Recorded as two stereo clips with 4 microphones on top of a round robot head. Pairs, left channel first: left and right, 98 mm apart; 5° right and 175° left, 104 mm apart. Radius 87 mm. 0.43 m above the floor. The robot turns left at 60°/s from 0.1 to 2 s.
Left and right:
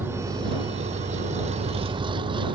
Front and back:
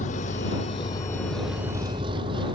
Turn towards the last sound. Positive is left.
turn(degrees=-130)